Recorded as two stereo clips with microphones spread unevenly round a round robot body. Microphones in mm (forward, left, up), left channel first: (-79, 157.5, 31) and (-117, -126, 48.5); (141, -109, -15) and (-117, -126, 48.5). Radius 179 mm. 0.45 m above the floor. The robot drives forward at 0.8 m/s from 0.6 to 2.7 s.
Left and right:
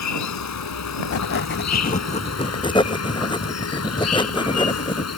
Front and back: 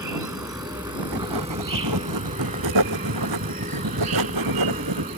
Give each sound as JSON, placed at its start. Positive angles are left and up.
{"t": 0.0, "sound": "an insect", "azimuth_deg": 100}
{"t": 1.0, "sound": "writing", "azimuth_deg": 115}